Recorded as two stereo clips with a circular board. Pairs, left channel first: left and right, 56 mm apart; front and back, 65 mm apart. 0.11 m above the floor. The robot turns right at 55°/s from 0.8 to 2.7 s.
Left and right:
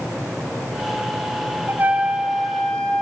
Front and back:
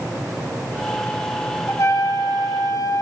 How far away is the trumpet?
About 1.5 m.